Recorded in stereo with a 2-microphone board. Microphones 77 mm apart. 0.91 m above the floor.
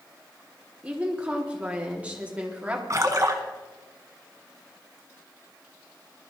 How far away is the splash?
About 1.3 m.